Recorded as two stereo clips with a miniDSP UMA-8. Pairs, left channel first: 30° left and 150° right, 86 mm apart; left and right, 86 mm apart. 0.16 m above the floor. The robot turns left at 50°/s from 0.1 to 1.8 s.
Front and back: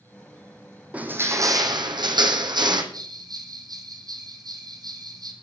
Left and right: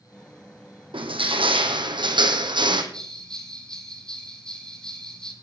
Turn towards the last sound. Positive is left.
turn(degrees=170)